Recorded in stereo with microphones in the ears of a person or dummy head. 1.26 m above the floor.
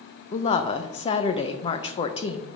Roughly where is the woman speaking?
Left.